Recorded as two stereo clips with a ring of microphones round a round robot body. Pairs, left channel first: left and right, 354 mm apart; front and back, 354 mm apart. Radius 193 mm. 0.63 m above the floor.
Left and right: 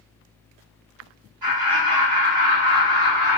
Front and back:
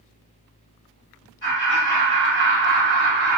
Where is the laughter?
60° right, 2.0 m.